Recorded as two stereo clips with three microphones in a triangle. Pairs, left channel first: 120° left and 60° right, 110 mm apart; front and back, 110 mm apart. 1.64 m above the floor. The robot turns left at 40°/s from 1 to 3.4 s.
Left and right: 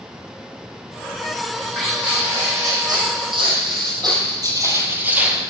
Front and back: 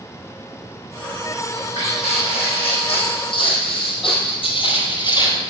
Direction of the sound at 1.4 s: 40° left.